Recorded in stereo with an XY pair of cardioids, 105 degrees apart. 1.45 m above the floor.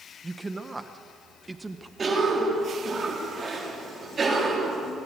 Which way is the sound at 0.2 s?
15° right.